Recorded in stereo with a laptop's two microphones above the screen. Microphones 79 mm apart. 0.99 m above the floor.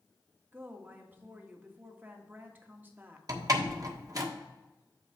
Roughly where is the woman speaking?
Right.